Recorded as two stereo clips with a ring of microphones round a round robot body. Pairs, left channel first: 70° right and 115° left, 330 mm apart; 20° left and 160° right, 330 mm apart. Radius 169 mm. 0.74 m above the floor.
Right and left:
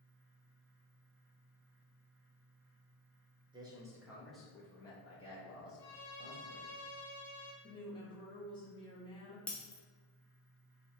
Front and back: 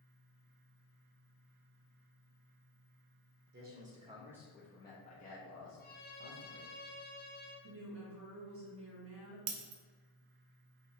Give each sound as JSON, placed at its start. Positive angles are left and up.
{"t": 3.5, "sound": "a man speaking", "azimuth_deg": 180, "distance_m": 1.1}
{"t": 5.8, "sound": "a violin", "azimuth_deg": -45, "distance_m": 0.8}
{"t": 7.6, "sound": "a woman speaking", "azimuth_deg": -135, "distance_m": 1.0}
{"t": 9.5, "sound": "breaking glass", "azimuth_deg": -155, "distance_m": 0.6}